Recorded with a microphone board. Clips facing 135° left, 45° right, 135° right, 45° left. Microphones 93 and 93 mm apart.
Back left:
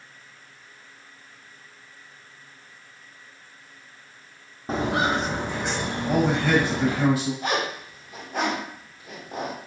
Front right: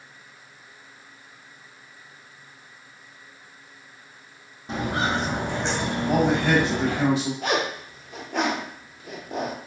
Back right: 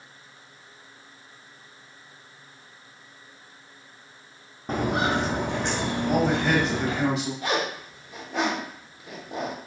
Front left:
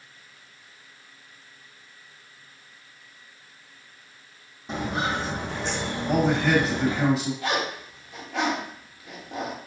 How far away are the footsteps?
About 0.6 m.